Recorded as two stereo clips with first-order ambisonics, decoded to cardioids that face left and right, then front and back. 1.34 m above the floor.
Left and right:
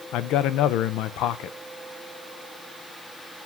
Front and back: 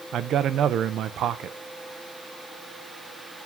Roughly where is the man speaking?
Behind left.